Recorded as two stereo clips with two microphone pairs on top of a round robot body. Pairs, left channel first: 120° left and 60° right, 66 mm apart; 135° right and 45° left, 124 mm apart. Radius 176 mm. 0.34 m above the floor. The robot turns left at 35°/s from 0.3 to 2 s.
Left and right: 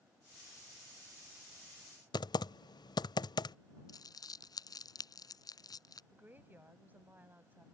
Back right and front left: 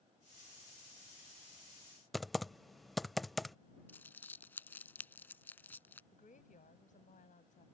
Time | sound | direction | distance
2.1 | typing on a keyboard | 135° left | ?
3.9 | crumpling | 150° left | ?
6.1 | a woman speaking | 120° right | ?